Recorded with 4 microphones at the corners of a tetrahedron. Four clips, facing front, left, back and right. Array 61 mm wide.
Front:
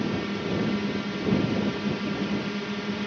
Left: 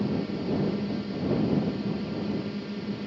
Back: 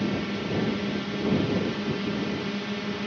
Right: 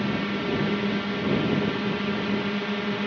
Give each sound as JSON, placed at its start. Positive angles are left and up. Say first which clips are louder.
{"t": 0.0, "sound": "a drone", "louder": "right 3 dB, even", "azimuth_deg": -90}